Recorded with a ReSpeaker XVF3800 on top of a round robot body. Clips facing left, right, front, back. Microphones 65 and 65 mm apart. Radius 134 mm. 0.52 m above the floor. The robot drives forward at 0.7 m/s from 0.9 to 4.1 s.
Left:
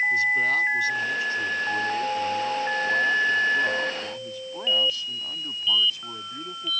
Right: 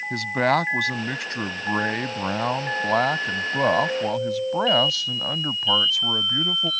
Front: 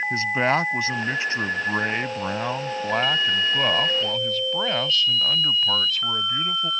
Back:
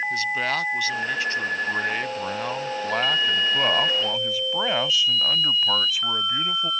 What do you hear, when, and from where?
0.1 s a man speaking: 65° right; by 6.7 s 100° right